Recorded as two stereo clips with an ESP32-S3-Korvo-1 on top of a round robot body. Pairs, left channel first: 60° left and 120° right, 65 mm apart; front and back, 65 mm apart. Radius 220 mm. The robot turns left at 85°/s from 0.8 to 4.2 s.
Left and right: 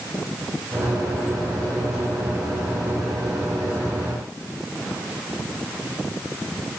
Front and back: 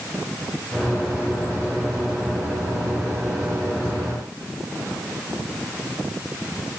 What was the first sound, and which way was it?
Only background noise.